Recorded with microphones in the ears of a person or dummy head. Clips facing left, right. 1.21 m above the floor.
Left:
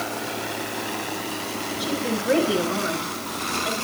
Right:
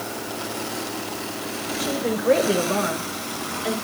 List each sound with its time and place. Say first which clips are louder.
1.8 s a woman speaking: right 3 dB; 40° right (ahead or behind), 6 m; by 3.8 s 60° right (ahead or behind), 7.5 m